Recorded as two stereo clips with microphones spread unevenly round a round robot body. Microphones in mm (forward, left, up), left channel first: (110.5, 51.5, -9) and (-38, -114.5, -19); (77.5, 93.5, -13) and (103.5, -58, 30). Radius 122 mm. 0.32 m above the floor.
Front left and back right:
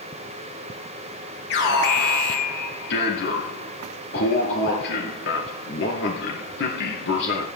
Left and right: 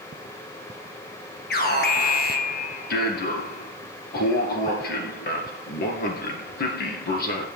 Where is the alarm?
95° left, 3.5 m.